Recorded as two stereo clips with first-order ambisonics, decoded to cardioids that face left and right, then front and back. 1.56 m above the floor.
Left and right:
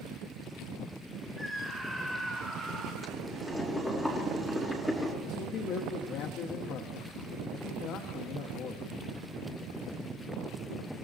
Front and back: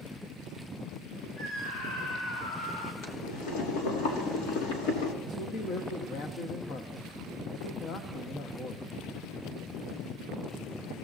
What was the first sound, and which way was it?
A scream, 10° right.